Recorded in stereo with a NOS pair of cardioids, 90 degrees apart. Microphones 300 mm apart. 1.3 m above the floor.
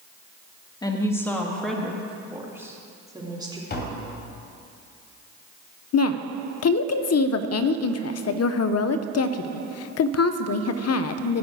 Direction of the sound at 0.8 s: 15° left.